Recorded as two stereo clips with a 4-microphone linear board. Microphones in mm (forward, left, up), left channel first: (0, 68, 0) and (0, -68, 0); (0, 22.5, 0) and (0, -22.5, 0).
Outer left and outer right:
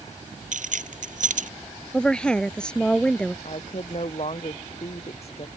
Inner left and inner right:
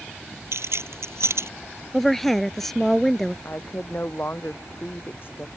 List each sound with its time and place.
0.5 s keys jangling: 70° right (ahead or behind)
1.9 s a woman speaking: 5° left (ahead or behind)
3.5 s a woman speaking: 50° left (ahead or behind)